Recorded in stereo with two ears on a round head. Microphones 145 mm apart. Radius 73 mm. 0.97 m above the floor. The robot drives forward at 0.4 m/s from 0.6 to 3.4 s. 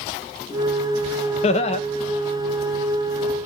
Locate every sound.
1.4 s laughter: 40° left (ahead or behind), 1.0 m